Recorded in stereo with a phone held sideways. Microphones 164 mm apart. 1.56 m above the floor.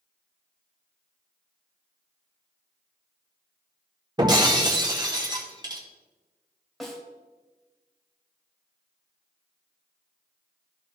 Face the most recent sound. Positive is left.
turn(degrees=0)  # may be behind; listen again after turning